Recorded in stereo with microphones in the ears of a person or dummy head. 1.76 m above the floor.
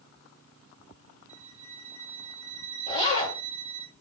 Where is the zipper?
25° left (ahead or behind), 3 m.